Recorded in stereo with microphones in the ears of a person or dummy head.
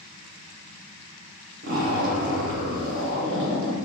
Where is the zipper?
55° right (ahead or behind), 0.8 m.